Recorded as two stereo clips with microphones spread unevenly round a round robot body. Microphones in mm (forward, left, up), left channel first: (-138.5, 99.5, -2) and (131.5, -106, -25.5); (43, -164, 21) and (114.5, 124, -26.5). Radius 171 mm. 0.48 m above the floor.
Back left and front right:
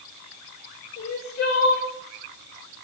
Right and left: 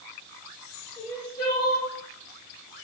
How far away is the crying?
About 1.6 m.